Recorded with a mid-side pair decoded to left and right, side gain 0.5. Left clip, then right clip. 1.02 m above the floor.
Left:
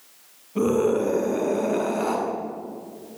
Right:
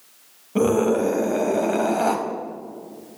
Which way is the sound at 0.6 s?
65° right.